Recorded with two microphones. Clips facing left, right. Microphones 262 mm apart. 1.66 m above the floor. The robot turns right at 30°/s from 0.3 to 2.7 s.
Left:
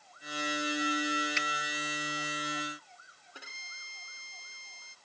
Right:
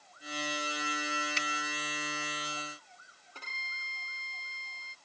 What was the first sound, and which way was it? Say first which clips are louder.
A finger snap: left 1 dB; 40° right (ahead or behind).